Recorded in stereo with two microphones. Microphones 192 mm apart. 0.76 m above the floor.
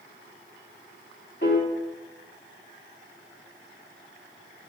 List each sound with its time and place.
1.4 s a piano: 60° left (ahead or behind), 2 m